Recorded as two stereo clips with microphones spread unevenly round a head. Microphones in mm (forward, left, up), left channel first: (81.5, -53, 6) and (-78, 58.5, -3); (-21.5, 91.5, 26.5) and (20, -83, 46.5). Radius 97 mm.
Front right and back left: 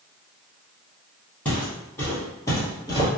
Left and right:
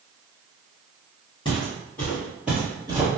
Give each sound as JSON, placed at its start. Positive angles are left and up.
{"t": 1.4, "sound": "footsteps", "azimuth_deg": 40, "distance_m": 1.9}